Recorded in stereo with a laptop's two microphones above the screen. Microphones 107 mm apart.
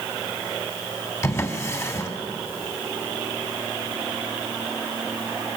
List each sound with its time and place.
1.2 s a drawer: 30° left (ahead or behind), 2.5 m